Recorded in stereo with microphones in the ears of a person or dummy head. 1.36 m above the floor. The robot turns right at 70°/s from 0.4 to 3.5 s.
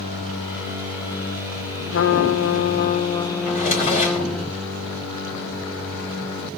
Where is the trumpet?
70° left, 1.0 m; by 4.5 s straight behind, 1.0 m.